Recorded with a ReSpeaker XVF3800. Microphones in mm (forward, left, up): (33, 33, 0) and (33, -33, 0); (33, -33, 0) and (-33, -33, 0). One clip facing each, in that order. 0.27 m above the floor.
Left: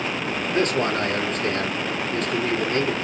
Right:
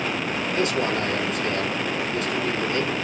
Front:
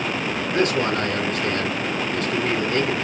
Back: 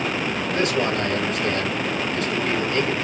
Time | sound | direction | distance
0.5 | a man speaking | 50° left | 3 m